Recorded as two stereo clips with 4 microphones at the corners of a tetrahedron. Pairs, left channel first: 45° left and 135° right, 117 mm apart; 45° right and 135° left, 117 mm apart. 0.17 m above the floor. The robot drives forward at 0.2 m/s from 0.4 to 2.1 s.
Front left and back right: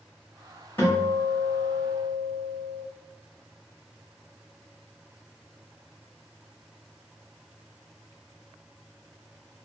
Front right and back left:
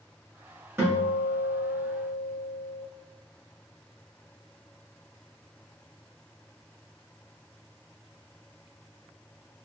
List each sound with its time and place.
0.8 s a guitar: 95° left, 1.4 m; by 2.8 s 110° left, 1.5 m